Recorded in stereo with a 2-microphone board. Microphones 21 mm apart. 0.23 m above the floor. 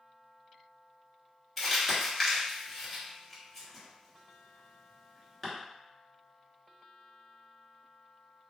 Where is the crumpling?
10° left (ahead or behind), 1.6 m.